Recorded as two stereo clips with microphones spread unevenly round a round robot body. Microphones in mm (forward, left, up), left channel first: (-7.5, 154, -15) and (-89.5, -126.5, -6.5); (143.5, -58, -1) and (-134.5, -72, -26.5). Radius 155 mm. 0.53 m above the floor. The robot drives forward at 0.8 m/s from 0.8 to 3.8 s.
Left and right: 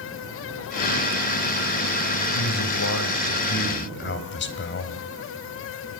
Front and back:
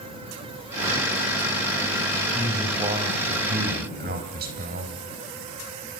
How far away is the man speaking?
About 3 m.